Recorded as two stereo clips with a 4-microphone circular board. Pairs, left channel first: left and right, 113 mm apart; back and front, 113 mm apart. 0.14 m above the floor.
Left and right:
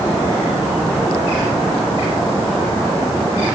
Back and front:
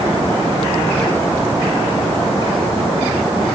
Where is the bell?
I don't hear a bell.